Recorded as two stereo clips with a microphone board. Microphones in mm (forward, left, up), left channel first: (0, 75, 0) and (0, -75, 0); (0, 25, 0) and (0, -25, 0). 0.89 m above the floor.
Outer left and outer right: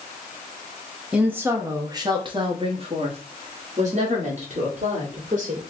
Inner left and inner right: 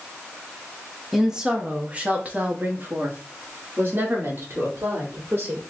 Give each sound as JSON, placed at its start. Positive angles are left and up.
{"t": 1.1, "sound": "a woman speaking", "side_deg": -5, "distance_m": 1.0}